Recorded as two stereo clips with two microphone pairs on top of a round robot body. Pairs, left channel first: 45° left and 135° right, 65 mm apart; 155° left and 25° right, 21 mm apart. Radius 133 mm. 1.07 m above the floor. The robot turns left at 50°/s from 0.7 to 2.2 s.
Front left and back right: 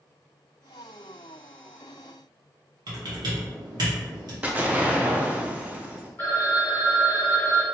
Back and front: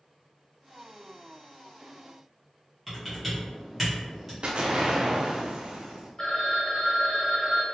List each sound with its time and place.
2.9 s typing on a keyboard: 120° right, 1.2 m
4.4 s an explosion: 70° right, 0.6 m
6.2 s a phone ringing: 105° left, 0.8 m